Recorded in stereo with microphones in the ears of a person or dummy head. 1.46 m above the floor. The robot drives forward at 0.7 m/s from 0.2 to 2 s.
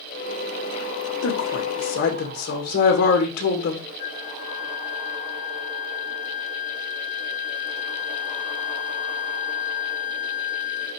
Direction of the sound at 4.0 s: 45° left (ahead or behind).